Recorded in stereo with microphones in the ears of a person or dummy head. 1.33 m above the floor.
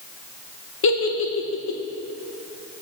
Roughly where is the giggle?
Left.